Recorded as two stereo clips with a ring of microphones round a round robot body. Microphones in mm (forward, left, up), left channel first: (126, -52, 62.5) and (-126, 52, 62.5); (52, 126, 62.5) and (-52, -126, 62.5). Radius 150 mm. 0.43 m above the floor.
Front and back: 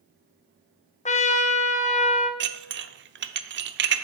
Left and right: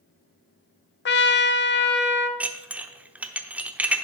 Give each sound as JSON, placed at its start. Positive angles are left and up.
{"t": 1.1, "sound": "a trumpet", "azimuth_deg": 35, "distance_m": 0.8}
{"t": 2.4, "sound": "dishes clattering", "azimuth_deg": 165, "distance_m": 0.7}